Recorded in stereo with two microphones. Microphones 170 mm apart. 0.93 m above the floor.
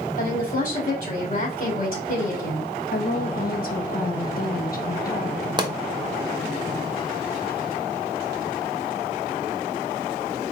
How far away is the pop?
About 0.8 m.